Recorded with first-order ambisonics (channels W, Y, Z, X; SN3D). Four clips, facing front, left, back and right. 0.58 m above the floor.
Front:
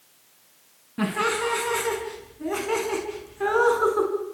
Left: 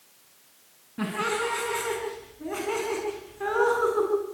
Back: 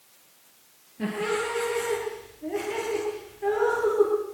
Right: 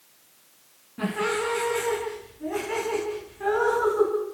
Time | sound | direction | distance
1.0 | laughter | 10° left | 5.5 m